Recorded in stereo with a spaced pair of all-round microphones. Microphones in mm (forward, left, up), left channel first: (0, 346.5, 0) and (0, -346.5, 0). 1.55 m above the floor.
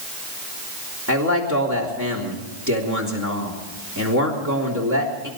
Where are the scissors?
I don't hear scissors.